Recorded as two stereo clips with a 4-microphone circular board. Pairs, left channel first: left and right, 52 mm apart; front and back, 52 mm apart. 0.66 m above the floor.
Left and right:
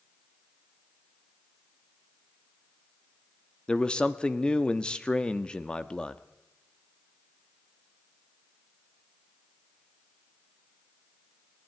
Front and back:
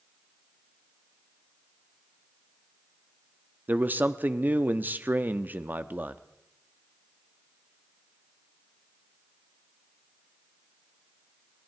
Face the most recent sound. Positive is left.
turn(degrees=150)